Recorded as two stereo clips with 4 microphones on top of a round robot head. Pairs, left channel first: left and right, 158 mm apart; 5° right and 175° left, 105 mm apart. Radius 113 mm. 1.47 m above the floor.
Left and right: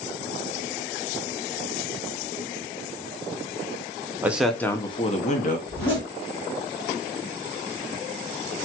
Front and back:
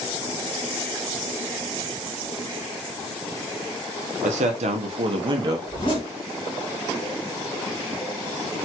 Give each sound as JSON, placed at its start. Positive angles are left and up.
{"t": 4.2, "sound": "a man speaking", "azimuth_deg": -170, "distance_m": 0.7}
{"t": 5.7, "sound": "a zipper", "azimuth_deg": 15, "distance_m": 2.0}